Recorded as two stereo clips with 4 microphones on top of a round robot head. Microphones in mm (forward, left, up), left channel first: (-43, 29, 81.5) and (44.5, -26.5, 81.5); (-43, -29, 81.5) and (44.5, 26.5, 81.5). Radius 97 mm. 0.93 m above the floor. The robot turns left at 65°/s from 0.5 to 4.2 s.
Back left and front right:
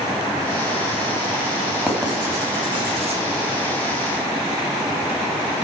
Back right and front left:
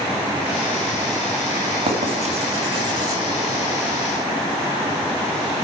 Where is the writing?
55° left, 3 m; by 3.2 s 30° right, 3 m.